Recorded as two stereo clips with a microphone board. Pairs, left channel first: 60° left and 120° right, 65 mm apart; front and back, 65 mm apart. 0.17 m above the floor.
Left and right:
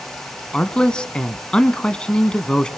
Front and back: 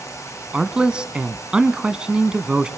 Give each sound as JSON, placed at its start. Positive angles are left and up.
{"t": 0.5, "sound": "a man speaking", "azimuth_deg": 120, "distance_m": 1.1}